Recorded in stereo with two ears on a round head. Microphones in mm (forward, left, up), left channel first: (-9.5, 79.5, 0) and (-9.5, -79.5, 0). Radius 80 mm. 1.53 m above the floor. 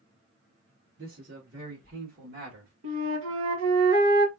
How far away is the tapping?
I don't hear tapping.